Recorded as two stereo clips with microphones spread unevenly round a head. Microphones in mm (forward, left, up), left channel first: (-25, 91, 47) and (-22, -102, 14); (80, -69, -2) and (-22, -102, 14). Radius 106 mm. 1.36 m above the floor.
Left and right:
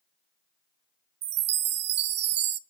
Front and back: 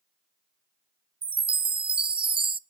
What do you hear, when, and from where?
1.2 s a chime: 115° right, 0.5 m